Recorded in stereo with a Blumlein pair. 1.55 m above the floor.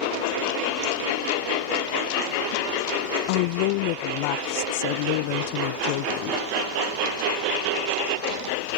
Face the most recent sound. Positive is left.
turn(degrees=45)